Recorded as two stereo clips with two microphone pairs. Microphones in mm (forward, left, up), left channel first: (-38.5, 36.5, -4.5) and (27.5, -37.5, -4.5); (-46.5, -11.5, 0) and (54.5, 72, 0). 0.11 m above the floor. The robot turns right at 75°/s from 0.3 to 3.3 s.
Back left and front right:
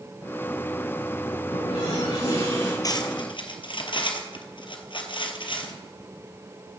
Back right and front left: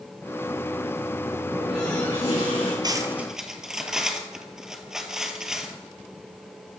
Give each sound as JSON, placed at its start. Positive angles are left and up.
{"t": 1.5, "sound": "a running tap", "azimuth_deg": 115, "distance_m": 6.5}
{"t": 2.8, "sound": "cutlery clinking", "azimuth_deg": 90, "distance_m": 1.7}